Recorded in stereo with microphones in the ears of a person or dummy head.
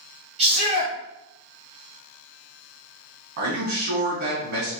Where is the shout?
75° right (ahead or behind), 1.9 m.